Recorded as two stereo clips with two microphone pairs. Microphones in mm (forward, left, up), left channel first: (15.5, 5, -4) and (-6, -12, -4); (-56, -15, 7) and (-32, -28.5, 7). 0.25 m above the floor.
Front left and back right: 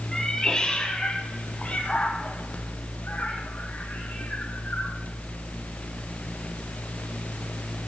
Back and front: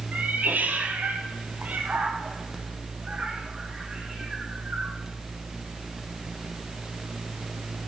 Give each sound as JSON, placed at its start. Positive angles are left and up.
{"t": 0.1, "sound": "a cat meowing", "azimuth_deg": -30, "distance_m": 2.0}